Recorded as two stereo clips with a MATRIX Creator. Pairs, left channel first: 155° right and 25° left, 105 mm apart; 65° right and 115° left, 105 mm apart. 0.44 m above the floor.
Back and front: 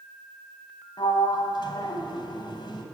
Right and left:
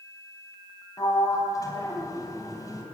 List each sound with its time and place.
1.0 s a sliding door: 120° right, 3.5 m